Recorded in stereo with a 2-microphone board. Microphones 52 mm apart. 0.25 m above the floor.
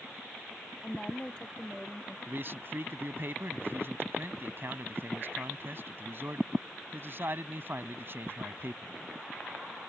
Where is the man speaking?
45° right (ahead or behind).